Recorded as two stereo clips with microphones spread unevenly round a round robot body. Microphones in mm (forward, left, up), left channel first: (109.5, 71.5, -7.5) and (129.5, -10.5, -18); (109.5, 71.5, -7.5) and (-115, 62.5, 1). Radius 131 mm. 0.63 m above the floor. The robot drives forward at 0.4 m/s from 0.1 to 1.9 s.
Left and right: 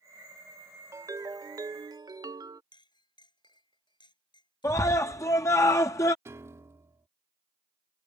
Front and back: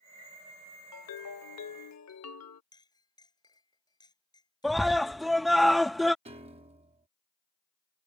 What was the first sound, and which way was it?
A ringtone, 20° right.